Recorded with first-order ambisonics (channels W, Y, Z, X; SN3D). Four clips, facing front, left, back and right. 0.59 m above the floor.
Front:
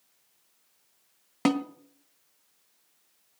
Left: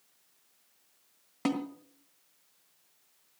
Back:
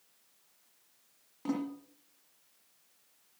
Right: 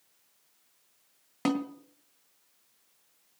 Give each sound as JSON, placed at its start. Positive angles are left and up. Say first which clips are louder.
{"t": 1.4, "sound": "a snare drum", "louder": "right 2 dB, front 9 dB", "azimuth_deg": -10, "distance_m": 1.4}